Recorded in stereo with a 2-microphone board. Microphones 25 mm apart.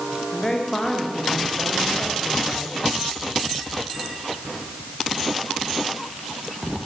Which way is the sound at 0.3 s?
25° left (ahead or behind).